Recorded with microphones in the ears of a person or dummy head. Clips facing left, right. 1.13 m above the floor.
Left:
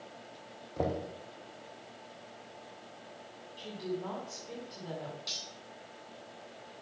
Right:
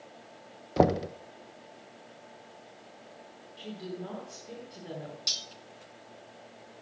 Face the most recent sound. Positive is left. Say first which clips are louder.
# even
turn(degrees=-30)  # may be behind; listen again after turning